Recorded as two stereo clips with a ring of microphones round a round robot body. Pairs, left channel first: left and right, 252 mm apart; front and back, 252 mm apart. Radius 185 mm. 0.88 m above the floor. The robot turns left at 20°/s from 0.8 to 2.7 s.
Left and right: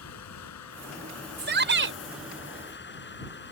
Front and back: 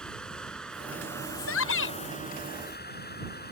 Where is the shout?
45° right; by 2.0 s 55° right.